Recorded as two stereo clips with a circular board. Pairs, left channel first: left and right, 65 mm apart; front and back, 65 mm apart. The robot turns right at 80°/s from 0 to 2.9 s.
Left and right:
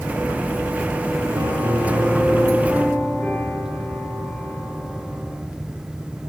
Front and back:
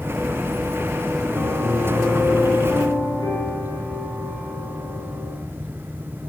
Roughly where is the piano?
Right.